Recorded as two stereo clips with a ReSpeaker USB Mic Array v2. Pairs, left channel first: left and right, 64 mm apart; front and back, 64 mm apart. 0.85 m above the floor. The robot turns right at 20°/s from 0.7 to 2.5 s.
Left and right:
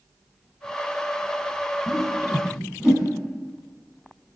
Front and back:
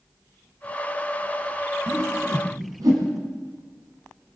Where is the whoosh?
Straight behind, 3 m; by 3.1 s 165° right, 3 m.